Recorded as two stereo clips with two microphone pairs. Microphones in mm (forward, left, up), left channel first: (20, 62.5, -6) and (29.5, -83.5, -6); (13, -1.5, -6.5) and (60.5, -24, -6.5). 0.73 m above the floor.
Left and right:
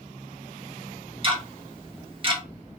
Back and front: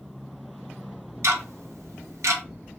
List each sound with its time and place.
1.2 s ticking: 35° right, 0.8 m